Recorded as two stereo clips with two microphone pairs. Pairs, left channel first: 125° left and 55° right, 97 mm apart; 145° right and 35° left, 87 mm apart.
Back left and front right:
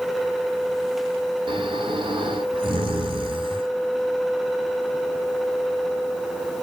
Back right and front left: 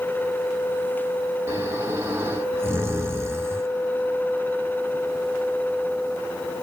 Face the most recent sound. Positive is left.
turn(degrees=-25)